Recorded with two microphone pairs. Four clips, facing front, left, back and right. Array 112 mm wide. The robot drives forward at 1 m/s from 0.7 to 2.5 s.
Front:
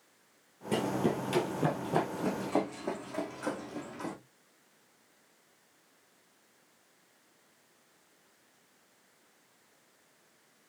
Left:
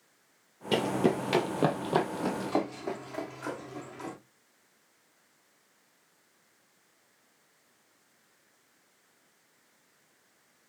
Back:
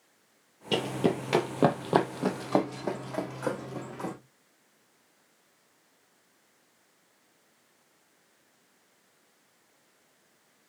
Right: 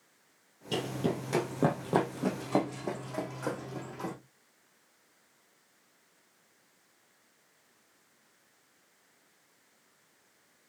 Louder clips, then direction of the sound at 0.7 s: Left 6 dB, back 2 dB; 110° left.